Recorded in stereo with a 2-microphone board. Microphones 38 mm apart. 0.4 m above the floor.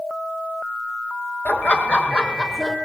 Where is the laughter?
55° left (ahead or behind), 2.5 m; by 2.8 s 5° left (ahead or behind), 1.4 m.